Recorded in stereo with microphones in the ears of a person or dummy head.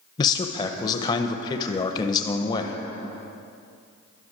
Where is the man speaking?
30° left (ahead or behind), 0.5 m.